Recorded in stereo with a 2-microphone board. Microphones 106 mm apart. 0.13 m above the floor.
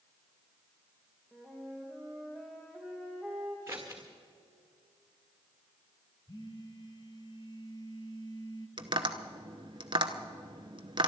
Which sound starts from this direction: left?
A phone buzzing, at 6.3 s.